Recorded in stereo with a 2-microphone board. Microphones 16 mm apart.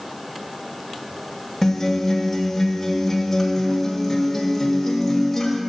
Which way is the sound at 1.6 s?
15° left (ahead or behind).